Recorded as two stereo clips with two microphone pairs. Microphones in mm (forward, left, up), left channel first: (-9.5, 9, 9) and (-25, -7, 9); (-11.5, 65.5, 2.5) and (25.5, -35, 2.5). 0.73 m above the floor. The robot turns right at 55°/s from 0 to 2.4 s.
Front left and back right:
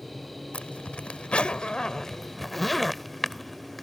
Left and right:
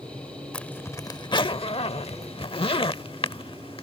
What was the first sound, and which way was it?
A zipper, 30° left.